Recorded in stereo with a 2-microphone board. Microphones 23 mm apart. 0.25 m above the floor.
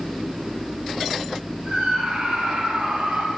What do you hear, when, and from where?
1.6 s a scream: 60° right (ahead or behind), 7 m